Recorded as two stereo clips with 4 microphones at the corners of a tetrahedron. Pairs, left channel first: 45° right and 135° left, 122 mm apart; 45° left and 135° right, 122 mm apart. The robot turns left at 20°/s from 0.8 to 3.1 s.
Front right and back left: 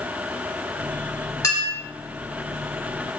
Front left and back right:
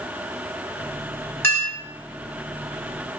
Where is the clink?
15° right, 1.1 m; by 1.7 s 20° right, 1.1 m.